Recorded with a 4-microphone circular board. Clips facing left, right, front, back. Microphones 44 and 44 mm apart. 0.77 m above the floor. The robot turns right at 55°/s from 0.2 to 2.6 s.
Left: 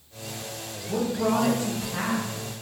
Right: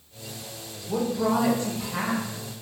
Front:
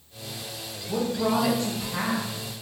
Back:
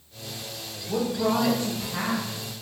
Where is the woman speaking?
140° right, 0.9 m; by 2.3 s 65° right, 0.9 m.